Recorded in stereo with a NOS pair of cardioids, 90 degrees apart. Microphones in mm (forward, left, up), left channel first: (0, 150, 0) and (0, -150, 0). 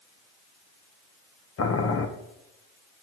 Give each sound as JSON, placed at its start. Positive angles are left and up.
{"t": 1.6, "sound": "boiling", "azimuth_deg": 50, "distance_m": 1.2}